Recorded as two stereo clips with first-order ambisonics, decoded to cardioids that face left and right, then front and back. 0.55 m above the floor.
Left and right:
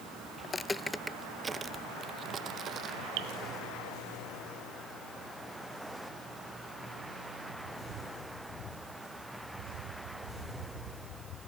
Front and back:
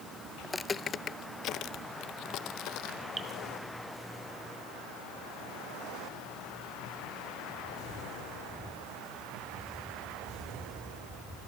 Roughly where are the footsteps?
Left.